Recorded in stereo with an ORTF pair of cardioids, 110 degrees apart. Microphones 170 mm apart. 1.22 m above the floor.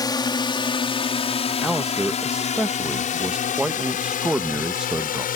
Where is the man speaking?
5° right.